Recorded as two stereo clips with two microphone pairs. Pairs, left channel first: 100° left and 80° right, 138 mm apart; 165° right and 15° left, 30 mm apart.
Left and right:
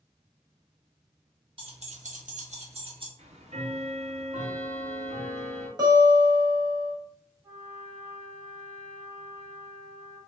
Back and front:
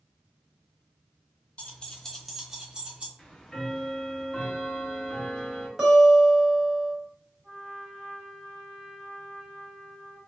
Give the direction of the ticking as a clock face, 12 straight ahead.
3 o'clock.